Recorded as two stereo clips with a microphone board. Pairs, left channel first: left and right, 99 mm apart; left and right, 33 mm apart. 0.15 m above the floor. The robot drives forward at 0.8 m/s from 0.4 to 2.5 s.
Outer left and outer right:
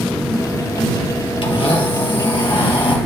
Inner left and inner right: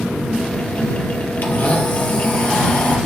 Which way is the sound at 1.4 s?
60° left (ahead or behind).